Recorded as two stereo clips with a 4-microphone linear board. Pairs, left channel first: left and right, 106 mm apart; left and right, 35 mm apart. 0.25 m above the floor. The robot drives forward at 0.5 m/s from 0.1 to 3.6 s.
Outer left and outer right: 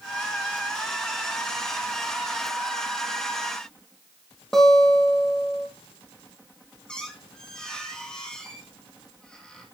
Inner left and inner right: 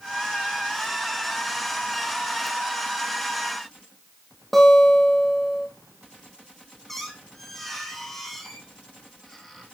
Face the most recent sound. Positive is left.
turn(degrees=5)  # may be behind; listen again after turning